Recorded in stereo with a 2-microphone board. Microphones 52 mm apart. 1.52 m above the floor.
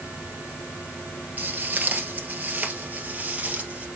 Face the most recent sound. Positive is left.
turn(degrees=-25)  # may be behind; listen again after turning